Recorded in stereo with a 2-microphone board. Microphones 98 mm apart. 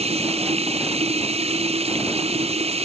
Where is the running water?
85° right.